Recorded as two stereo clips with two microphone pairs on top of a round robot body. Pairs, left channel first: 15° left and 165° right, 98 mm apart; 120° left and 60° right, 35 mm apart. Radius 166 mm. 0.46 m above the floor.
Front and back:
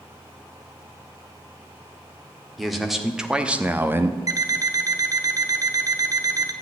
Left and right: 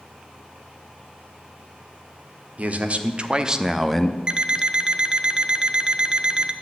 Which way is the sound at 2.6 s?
70° right.